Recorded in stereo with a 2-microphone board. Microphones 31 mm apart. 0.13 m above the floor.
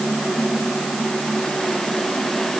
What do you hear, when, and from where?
Only background noise.